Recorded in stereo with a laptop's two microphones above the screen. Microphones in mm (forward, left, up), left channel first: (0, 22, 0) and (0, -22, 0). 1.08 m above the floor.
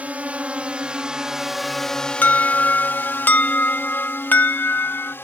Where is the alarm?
40° left (ahead or behind).